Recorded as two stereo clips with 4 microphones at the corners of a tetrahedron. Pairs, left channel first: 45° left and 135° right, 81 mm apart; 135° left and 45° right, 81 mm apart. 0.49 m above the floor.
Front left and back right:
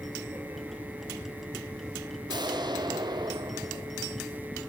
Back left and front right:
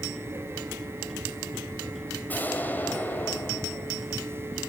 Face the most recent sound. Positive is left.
turn(degrees=-160)